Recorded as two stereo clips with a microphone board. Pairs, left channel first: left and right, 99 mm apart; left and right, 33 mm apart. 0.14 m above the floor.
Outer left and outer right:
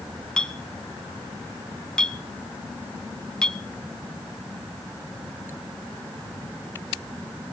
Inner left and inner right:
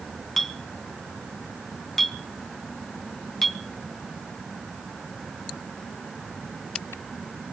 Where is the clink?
10° left (ahead or behind), 0.6 m.